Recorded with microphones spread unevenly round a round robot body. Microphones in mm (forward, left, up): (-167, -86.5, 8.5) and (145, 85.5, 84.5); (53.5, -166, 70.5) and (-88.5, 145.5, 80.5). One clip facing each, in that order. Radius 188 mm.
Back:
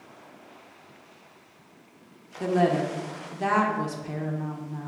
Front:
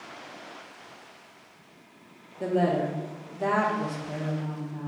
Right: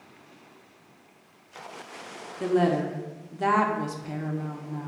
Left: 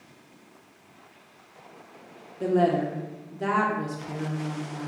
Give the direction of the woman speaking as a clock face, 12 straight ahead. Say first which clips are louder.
Back 1 dB, even; 4 o'clock.